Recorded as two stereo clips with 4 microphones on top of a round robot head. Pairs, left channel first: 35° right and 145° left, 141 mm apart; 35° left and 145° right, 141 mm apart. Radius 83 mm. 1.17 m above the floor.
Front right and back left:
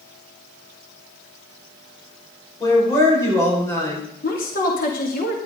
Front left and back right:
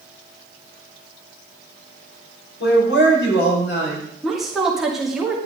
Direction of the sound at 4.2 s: 60° right.